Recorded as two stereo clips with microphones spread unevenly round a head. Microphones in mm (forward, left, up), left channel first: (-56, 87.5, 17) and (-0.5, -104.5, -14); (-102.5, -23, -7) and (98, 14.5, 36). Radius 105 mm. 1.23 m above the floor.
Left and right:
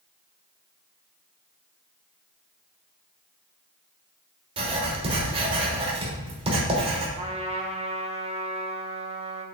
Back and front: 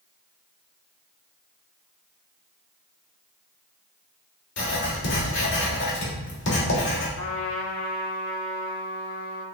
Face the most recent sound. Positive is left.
turn(degrees=-135)